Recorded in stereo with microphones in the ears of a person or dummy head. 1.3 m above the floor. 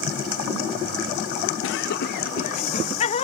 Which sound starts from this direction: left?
Laughter, at 1.6 s.